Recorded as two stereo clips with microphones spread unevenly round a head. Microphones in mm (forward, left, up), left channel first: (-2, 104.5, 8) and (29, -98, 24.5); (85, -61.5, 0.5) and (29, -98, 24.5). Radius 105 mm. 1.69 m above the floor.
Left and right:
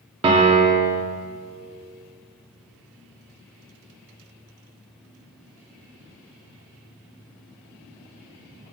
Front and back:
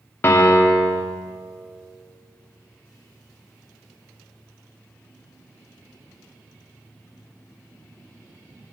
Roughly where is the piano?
Ahead right.